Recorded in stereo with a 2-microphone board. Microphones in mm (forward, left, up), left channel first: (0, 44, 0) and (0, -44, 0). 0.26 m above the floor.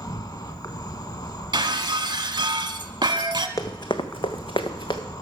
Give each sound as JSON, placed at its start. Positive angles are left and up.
{"t": 0.0, "sound": "an insect", "side_deg": 45, "distance_m": 0.7}
{"t": 1.5, "sound": "breaking glass", "side_deg": -60, "distance_m": 0.8}
{"t": 3.6, "sound": "running footsteps", "side_deg": 40, "distance_m": 0.9}